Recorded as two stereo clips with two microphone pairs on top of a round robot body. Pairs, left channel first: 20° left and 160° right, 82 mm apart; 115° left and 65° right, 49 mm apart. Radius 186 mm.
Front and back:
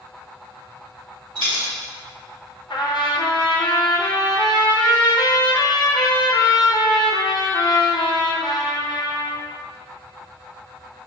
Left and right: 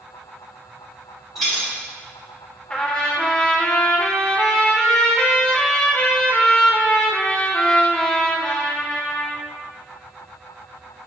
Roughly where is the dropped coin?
Behind right.